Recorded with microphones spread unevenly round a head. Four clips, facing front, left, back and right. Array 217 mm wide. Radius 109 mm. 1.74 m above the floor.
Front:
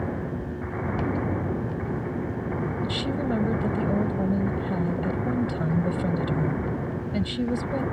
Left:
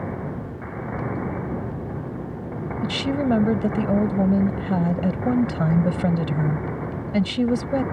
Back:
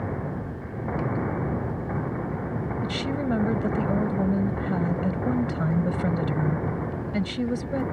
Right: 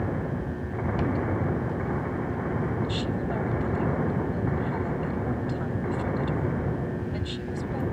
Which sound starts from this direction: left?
A woman speaking, at 2.8 s.